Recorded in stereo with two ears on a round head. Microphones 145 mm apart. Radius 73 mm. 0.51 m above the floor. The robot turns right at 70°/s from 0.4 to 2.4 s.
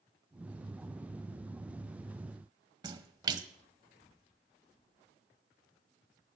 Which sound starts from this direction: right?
A splash, at 2.8 s.